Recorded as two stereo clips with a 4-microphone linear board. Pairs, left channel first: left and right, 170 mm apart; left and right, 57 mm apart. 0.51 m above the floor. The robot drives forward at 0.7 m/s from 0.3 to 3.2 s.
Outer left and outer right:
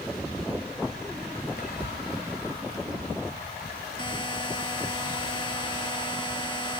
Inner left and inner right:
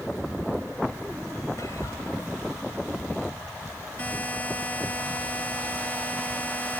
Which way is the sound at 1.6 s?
70° left (ahead or behind).